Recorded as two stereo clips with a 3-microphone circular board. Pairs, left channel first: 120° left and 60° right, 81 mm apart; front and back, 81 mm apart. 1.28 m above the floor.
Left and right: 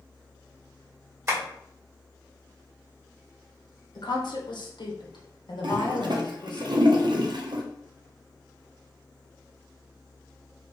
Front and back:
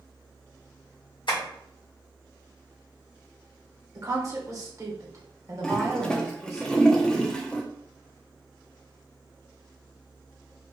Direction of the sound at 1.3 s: 5° right.